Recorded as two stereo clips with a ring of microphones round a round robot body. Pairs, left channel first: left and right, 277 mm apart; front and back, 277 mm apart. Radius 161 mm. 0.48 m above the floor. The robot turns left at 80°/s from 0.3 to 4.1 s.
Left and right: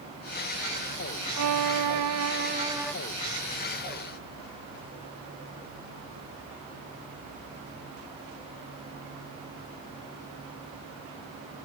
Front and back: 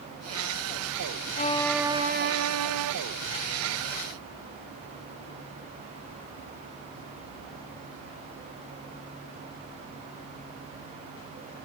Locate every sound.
1.4 s a violin: 60° right; by 2.9 s 175° left